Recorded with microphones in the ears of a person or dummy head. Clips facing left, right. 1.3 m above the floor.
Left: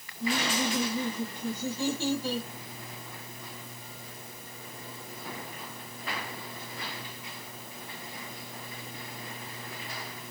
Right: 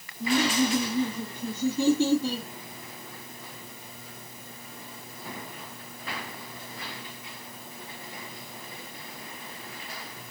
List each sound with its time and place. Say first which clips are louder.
0.2 s laughter: right 5 dB; 25° right (ahead or behind), 2.5 m